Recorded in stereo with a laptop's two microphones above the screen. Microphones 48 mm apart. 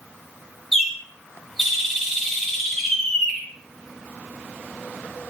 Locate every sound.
0.7 s a bird: 5° left (ahead or behind), 3 m